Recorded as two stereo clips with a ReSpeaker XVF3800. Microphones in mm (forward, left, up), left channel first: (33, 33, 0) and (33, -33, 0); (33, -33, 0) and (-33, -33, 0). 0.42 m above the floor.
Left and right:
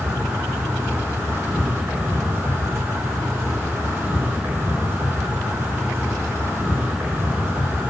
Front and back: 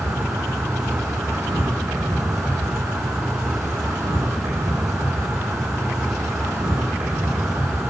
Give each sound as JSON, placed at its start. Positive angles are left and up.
{"t": 0.0, "sound": "an insect", "azimuth_deg": -140, "distance_m": 3.0}